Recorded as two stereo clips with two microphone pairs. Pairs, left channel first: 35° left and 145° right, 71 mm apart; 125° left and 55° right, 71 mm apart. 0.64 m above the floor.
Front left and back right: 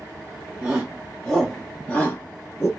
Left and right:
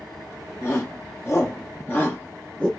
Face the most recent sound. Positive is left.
turn(degrees=60)